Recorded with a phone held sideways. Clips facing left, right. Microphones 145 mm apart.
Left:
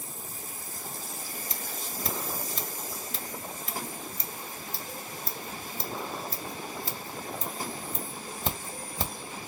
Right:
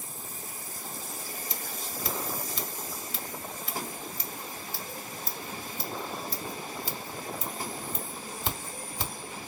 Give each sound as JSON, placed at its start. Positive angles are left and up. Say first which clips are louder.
{"t": 1.5, "sound": "scissors", "louder": "even", "side_deg": 45, "distance_m": 1.6}